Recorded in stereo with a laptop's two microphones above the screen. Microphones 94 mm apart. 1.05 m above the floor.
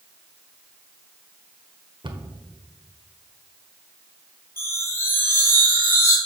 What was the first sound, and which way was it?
A cupboard door, 60° right (ahead or behind).